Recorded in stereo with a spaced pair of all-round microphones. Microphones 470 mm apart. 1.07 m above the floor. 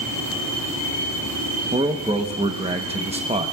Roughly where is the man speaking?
Centre.